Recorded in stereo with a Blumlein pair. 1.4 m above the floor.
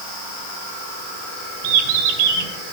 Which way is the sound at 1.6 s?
50° right.